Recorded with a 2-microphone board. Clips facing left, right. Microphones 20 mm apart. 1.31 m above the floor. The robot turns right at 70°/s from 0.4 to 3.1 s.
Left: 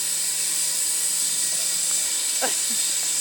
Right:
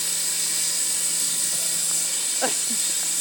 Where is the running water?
50° right, 1.6 m; by 3.2 s 135° left, 1.6 m.